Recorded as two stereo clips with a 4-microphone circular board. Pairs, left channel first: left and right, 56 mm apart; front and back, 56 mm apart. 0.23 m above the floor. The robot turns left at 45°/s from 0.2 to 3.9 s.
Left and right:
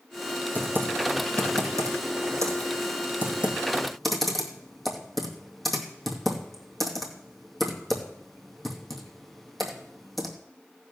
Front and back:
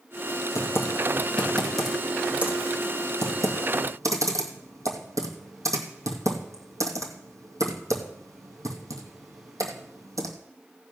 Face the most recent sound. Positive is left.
turn(degrees=180)